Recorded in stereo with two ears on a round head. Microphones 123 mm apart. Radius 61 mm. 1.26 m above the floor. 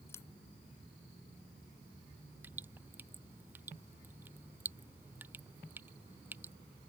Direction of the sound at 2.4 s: 15° right (ahead or behind).